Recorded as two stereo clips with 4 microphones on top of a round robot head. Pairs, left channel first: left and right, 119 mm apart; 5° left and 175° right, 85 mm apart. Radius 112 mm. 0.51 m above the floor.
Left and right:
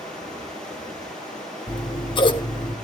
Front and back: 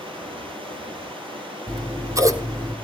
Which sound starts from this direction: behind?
Running water, at 0.0 s.